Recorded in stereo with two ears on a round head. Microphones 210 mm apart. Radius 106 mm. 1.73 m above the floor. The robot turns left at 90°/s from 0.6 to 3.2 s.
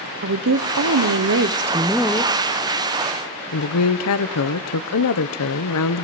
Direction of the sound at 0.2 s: 55° right.